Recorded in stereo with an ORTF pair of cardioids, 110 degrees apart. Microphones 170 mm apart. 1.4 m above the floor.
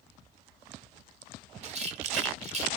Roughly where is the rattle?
Ahead right.